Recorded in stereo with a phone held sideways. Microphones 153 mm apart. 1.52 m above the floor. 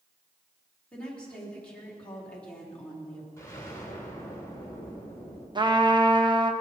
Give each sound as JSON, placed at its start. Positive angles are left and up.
{"t": 0.9, "sound": "a woman speaking", "side_deg": 5, "distance_m": 4.0}
{"t": 3.4, "sound": "an explosion", "side_deg": 20, "distance_m": 3.5}
{"t": 5.5, "sound": "a trumpet", "side_deg": -30, "distance_m": 0.9}